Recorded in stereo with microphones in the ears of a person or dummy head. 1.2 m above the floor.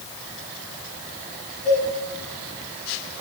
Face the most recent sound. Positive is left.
turn(degrees=30)  # may be behind; listen again after turning